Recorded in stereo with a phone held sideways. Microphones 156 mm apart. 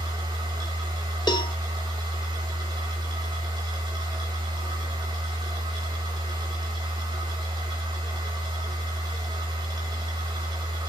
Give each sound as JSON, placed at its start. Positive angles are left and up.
{"t": 0.0, "sound": "a machine running", "side_deg": -30, "distance_m": 2.0}
{"t": 1.3, "sound": "a cowbell", "side_deg": 25, "distance_m": 1.1}